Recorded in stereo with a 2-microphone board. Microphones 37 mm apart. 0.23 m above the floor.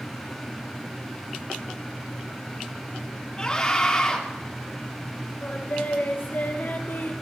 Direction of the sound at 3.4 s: 25° left (ahead or behind).